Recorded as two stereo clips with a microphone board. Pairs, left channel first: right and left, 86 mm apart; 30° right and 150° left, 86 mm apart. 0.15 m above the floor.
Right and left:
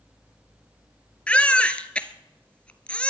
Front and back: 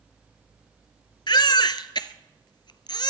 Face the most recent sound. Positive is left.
turn(degrees=-15)